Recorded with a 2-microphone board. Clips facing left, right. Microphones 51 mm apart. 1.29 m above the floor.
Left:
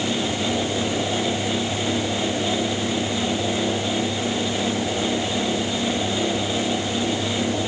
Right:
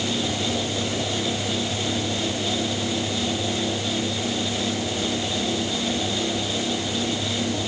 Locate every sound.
Only background noise.